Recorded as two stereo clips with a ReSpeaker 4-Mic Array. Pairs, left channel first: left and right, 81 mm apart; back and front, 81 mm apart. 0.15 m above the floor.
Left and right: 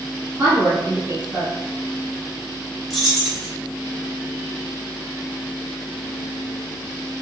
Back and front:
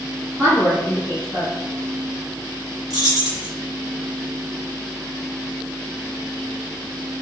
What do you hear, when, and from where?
0.4 s a woman speaking: 45° right, 1.4 m
2.9 s keys jangling: 5° right, 1.3 m